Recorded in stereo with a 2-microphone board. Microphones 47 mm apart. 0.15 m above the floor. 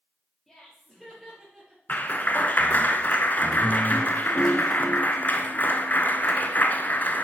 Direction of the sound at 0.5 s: 5° left (ahead or behind).